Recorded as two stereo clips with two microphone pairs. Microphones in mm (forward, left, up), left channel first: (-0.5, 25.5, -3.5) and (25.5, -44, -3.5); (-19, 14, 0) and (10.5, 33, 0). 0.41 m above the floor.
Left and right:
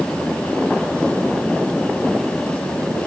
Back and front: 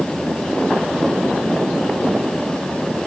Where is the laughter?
I don't hear laughter.